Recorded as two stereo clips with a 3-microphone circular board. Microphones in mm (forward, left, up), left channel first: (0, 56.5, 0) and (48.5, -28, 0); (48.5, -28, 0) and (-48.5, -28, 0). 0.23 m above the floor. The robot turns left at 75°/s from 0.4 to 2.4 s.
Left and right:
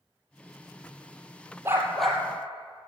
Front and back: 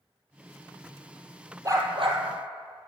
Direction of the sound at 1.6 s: 120° right.